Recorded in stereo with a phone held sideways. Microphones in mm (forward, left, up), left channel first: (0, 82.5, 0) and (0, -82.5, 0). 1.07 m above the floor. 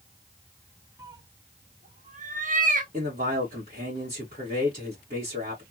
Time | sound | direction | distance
1.0 | a cat meowing | 15° right (ahead or behind) | 0.6 m
2.9 | a man speaking | 60° right (ahead or behind) | 1.7 m